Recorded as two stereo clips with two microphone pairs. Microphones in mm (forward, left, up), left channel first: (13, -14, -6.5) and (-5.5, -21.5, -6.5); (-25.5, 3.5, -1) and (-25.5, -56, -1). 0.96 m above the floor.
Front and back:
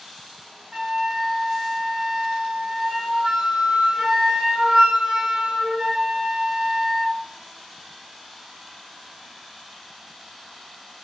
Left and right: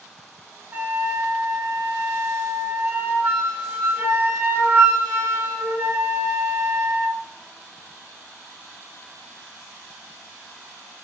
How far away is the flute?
About 0.6 m.